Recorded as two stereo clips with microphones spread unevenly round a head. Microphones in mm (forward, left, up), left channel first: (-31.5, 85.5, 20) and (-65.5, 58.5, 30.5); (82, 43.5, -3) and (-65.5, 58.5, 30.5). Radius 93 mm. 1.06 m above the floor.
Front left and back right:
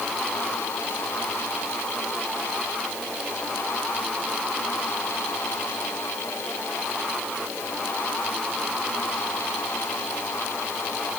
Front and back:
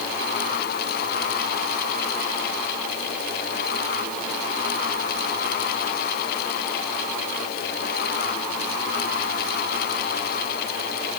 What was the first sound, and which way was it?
Only background noise.